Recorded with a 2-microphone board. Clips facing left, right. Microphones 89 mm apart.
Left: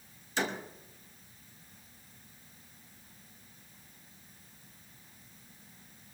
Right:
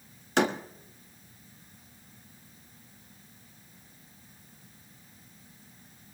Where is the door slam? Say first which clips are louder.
Right 8 dB; 65° right (ahead or behind), 1.1 m.